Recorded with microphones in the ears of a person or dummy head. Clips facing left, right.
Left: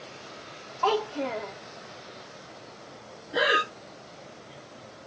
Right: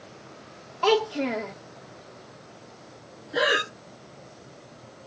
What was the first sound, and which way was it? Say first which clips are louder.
A child speaking: right 4 dB; 20° right (ahead or behind).